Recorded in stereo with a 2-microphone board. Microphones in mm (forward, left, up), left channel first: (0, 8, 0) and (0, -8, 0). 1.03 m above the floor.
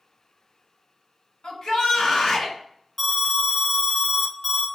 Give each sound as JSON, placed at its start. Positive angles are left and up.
{"t": 1.4, "sound": "a shout", "side_deg": 60, "distance_m": 1.8}
{"t": 3.0, "sound": "an alarm", "side_deg": 10, "distance_m": 0.7}